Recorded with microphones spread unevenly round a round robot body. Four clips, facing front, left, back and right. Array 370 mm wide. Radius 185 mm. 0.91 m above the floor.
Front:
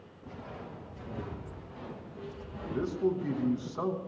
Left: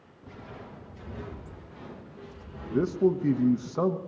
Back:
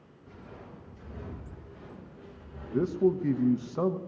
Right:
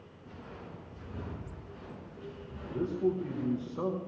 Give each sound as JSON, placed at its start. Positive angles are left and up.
{"t": 0.2, "sound": "footsteps", "azimuth_deg": 10, "distance_m": 8.0}
{"t": 2.7, "sound": "a man speaking", "azimuth_deg": 100, "distance_m": 0.7}